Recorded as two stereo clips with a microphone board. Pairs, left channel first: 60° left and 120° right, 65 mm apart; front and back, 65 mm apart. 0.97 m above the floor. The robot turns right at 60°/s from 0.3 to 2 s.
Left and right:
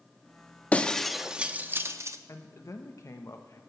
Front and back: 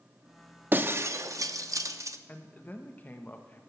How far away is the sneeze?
I don't hear a sneeze.